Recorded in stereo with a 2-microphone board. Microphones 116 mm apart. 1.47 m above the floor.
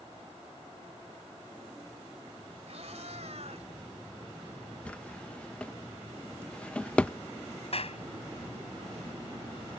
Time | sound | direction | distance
2.7 | a cat meowing | 70° right (ahead or behind) | ?
4.8 | a drawer | 10° left (ahead or behind) | ?
7.7 | a clap | 60° left (ahead or behind) | ?